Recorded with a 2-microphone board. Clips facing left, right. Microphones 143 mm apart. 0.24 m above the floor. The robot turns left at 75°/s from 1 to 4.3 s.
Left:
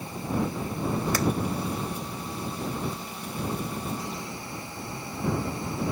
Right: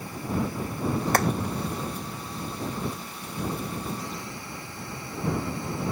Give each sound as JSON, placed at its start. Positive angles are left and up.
{"t": 1.1, "sound": "hammering", "side_deg": -60}